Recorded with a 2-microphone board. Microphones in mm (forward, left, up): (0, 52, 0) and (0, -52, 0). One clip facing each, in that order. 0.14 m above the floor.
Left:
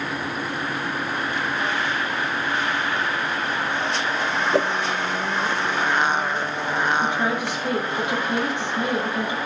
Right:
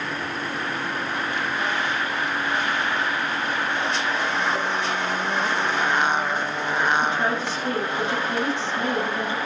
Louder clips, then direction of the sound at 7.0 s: Left 1 dB; 15° left (ahead or behind).